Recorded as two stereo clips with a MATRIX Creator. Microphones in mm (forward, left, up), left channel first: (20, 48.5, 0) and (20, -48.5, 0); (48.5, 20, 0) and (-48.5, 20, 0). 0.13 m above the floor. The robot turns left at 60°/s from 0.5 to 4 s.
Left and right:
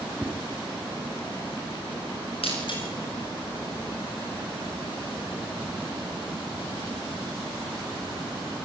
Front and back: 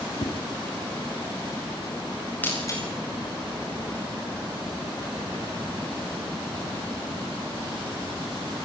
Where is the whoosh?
Straight ahead, 6 m.